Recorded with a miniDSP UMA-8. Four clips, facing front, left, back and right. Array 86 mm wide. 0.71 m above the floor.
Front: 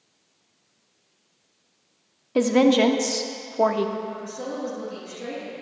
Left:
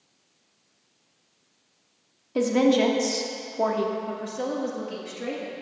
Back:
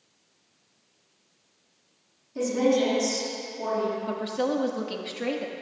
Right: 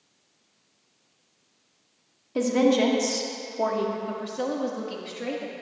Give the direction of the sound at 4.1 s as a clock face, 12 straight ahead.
6 o'clock.